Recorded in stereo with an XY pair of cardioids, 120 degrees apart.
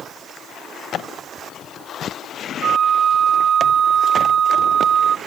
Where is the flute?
50° right.